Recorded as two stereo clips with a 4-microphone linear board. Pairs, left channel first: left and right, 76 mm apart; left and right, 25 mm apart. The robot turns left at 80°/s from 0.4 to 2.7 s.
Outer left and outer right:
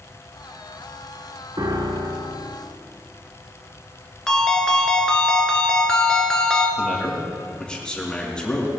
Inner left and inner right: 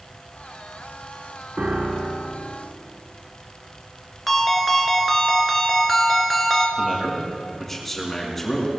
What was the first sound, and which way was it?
A piano, 65° right.